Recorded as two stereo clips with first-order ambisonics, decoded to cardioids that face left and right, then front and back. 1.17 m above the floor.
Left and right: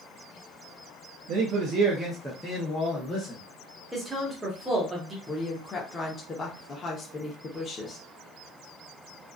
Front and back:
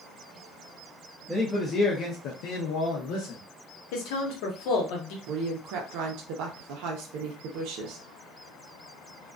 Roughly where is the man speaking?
Right.